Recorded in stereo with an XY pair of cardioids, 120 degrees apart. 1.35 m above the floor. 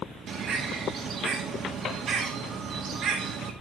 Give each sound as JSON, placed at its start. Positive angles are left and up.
{"t": 0.3, "sound": "a bird", "azimuth_deg": -45, "distance_m": 1.9}